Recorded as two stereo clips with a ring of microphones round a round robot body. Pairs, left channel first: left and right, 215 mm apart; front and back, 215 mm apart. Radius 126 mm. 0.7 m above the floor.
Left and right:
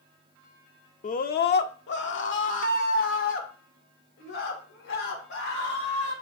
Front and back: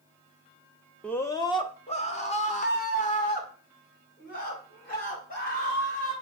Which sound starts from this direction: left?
A scream, at 1.0 s.